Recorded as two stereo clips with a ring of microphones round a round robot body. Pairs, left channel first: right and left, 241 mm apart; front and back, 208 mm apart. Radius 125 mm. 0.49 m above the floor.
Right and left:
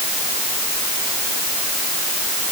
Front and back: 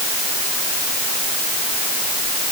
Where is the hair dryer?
No hair dryer in this recording.